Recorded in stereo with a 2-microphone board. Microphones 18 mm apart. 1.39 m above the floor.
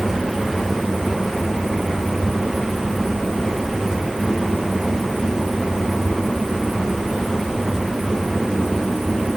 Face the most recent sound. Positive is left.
No sound to turn to.